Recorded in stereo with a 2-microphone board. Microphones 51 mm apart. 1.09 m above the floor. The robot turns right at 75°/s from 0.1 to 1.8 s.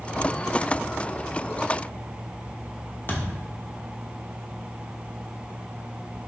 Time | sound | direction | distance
3.1 | a thud | 40° left (ahead or behind) | 0.9 m